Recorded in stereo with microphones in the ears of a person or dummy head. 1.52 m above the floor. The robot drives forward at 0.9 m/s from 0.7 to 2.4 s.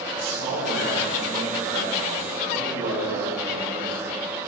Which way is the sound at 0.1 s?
65° right (ahead or behind).